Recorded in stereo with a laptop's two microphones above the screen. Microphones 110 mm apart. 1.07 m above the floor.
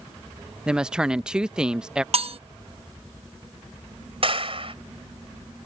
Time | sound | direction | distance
0.7 | a woman speaking | 5° right (ahead or behind) | ?
2.1 | cutlery clinking | 55° right (ahead or behind) | ?
4.2 | a clap | 55° right (ahead or behind) | ?